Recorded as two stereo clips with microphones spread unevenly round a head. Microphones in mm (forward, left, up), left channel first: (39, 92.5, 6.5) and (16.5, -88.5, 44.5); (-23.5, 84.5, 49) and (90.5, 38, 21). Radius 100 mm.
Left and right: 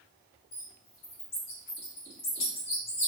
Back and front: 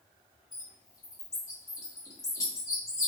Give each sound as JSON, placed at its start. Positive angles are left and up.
{"t": 0.5, "sound": "a bird", "azimuth_deg": 110, "distance_m": 1.2}